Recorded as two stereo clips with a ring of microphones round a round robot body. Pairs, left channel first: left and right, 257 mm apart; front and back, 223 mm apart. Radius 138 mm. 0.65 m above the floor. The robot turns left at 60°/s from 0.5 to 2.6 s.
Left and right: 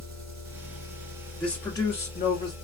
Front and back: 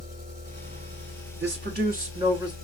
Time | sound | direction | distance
0.0 | an engine running | 100° right | 1.8 m
1.4 | a man speaking | straight behind | 1.6 m